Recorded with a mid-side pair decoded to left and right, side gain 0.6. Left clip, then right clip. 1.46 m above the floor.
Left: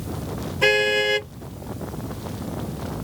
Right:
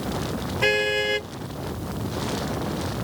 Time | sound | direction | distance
0.6 | a car horn | 20° left | ?